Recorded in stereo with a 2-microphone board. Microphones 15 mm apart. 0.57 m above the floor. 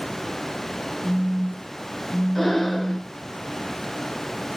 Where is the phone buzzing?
60° left (ahead or behind), 2.0 m.